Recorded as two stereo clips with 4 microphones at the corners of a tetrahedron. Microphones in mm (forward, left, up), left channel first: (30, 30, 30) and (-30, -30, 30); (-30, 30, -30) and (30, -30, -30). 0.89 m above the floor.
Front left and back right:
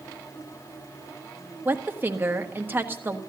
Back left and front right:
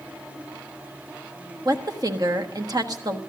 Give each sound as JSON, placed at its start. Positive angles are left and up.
{"t": 1.6, "sound": "a woman speaking", "azimuth_deg": -75, "distance_m": 1.3}